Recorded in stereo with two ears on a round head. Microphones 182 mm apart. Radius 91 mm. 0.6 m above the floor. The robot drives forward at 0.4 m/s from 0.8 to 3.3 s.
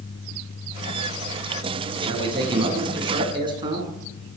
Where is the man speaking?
25° right (ahead or behind), 6.5 m.